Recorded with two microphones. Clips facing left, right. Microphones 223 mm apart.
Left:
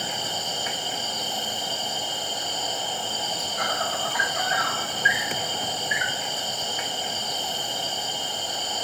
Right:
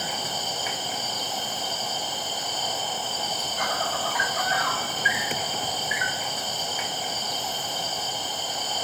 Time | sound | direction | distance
0.0 | an insect | centre (ahead or behind) | 5 m